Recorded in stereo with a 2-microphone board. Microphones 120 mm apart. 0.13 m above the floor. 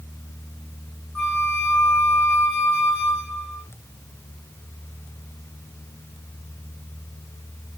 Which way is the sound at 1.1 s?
10° left (ahead or behind).